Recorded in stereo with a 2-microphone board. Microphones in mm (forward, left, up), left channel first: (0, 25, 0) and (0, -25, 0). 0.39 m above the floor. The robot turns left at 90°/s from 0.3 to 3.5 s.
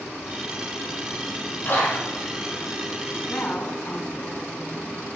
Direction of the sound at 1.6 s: 45° left (ahead or behind).